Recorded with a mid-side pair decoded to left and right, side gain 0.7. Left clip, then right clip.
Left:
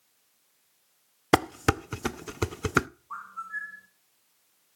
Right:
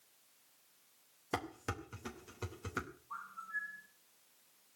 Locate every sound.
1.3 s dishes clattering: 60° left, 0.6 m
3.1 s a bird: 40° left, 2.0 m